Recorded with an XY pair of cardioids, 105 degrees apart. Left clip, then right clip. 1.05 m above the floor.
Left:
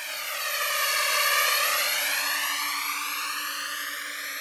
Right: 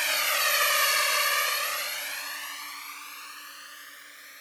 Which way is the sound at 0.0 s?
50° right.